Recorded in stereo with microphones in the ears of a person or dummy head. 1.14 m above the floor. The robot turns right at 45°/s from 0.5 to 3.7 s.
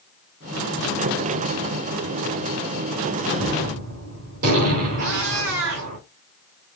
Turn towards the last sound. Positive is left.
turn(degrees=-65)  # may be behind; listen again after turning